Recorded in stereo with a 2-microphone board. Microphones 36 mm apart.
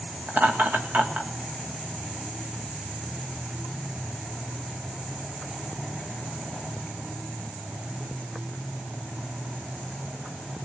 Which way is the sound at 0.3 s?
60° right (ahead or behind).